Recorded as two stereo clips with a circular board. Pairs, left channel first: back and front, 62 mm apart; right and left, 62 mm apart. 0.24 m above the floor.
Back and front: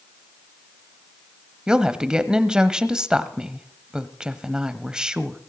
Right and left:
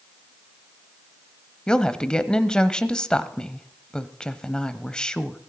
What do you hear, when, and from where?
1.7 s a woman speaking: 50° right, 0.9 m